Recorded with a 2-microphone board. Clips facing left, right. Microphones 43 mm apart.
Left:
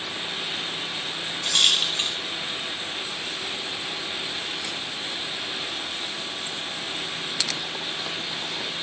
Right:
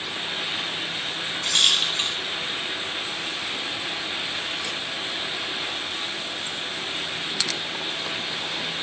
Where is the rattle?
Centre (ahead or behind), 0.6 m.